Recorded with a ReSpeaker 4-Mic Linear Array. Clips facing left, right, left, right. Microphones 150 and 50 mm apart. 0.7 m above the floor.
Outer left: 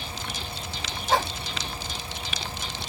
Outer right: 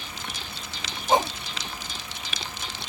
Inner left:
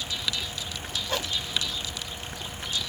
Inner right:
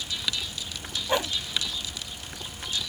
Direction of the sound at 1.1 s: 20° right (ahead or behind).